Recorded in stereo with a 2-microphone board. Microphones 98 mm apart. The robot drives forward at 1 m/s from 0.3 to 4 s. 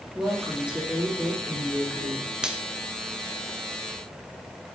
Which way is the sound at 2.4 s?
10° right (ahead or behind).